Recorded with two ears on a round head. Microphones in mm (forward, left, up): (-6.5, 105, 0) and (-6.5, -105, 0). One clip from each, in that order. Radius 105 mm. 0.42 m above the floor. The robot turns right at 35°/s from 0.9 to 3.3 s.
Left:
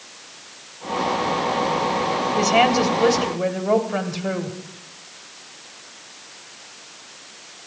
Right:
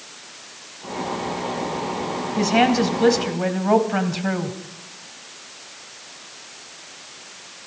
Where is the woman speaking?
130° left, 1.8 m; by 4.5 s 165° left, 1.8 m.